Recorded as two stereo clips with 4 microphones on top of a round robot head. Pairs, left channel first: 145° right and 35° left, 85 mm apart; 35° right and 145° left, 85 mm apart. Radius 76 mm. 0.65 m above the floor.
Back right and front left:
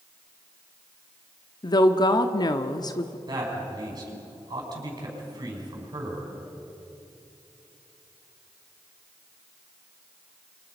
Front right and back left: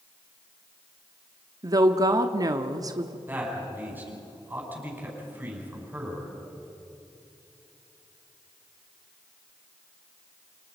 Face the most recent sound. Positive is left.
turn(degrees=80)